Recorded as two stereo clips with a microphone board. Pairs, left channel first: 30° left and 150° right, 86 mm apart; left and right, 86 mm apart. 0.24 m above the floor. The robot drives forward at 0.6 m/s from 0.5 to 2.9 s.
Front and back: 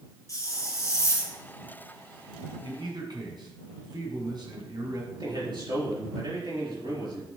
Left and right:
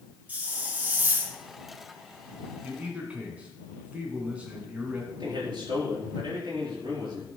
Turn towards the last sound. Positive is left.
turn(degrees=-125)